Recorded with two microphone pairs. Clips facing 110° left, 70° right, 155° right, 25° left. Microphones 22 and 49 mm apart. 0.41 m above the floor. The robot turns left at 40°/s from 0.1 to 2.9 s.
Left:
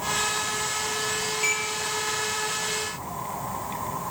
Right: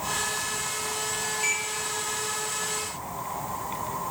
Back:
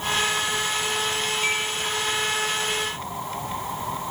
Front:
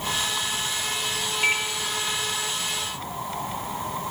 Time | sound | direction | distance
1.4 | a microwave | 25° left | 0.6 m